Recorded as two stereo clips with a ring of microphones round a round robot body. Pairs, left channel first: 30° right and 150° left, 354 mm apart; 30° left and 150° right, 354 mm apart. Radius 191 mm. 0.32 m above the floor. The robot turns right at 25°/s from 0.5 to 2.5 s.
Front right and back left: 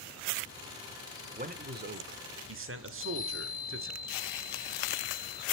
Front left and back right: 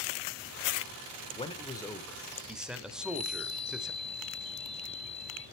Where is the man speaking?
95° left, 1.1 m; by 3.9 s 125° left, 1.1 m.